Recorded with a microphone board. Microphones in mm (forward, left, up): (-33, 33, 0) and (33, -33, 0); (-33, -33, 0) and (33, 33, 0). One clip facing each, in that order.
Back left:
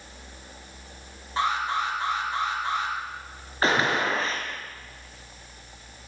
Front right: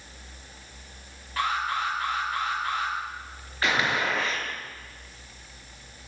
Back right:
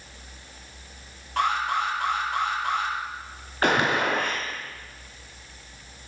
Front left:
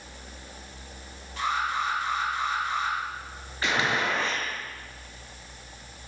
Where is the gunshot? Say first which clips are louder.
Back left 3 dB, back right 4 dB; 170° right, 4.5 m.